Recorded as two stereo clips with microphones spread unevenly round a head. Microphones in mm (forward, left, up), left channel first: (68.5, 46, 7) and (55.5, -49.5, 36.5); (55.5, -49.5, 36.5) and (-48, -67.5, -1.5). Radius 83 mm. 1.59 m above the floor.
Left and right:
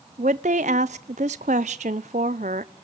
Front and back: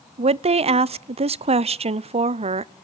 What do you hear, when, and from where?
0.2 s a woman speaking: 140° right, 0.7 m